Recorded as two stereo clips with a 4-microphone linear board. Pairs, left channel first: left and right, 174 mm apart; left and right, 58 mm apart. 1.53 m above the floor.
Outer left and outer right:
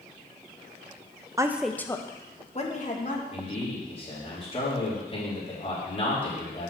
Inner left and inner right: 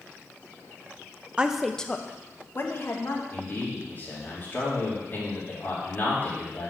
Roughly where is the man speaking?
Left.